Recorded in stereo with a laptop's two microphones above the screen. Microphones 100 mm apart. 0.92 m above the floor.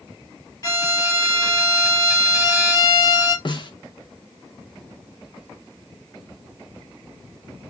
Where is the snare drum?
50° left (ahead or behind), 0.8 m.